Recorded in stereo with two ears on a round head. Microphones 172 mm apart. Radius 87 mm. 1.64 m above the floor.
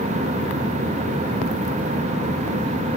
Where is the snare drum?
No snare drum in this recording.